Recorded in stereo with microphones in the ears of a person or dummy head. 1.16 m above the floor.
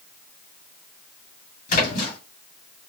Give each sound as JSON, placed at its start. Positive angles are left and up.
{"t": 1.7, "sound": "a splash", "side_deg": 45, "distance_m": 2.0}